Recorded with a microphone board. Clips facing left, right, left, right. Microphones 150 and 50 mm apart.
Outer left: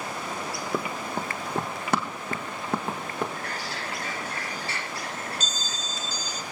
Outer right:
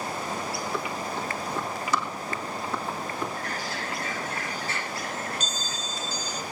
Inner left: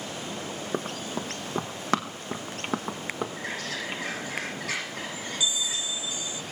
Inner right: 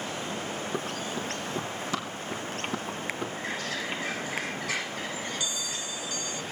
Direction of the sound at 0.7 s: 50° left (ahead or behind).